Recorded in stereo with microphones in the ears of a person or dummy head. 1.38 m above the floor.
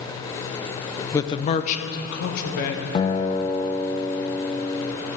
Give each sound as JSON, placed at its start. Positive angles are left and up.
{"t": 1.1, "sound": "a man speaking", "side_deg": 15, "distance_m": 0.6}
{"t": 3.0, "sound": "a guitar", "side_deg": 30, "distance_m": 0.6}